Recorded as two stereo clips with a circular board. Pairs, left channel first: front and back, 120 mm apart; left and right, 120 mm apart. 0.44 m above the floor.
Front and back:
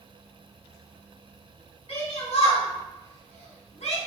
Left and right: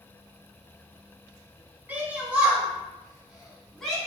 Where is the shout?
15° right, 3.5 m; by 4.0 s 5° left, 3.5 m.